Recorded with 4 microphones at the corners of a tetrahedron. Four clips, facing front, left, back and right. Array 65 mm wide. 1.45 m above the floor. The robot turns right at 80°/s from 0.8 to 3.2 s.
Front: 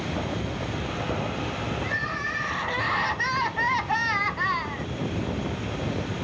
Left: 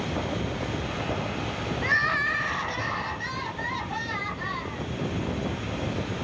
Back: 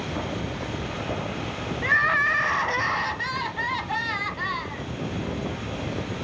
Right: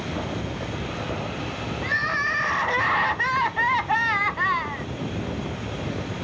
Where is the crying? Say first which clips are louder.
Even, back 11 dB; 170° left, 0.5 m; by 4.9 s 80° right, 0.5 m.